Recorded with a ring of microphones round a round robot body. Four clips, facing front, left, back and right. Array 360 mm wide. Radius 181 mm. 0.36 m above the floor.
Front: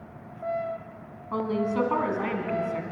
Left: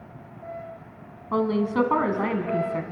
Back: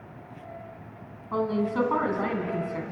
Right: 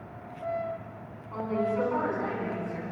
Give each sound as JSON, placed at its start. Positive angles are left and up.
{"t": 1.3, "sound": "a woman speaking", "azimuth_deg": 90, "distance_m": 3.5}